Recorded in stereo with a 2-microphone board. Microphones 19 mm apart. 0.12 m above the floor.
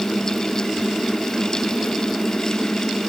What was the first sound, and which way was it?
Only background noise.